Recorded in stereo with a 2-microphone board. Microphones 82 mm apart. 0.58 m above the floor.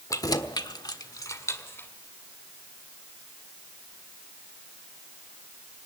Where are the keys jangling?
40° left (ahead or behind), 1.4 m; by 1.9 s 25° left (ahead or behind), 2 m.